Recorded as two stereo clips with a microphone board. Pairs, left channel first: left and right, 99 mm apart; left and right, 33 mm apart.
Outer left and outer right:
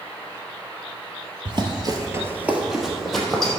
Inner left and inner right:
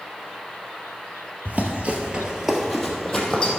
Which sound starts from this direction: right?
Running footsteps, at 1.4 s.